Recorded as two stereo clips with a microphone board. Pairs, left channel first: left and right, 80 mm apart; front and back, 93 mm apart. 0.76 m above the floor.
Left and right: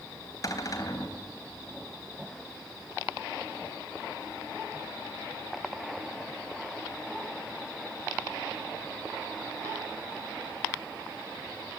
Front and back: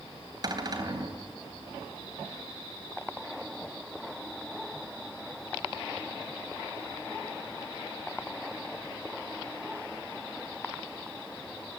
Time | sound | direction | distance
0.4 | a cupboard door | 135° left | 3.5 m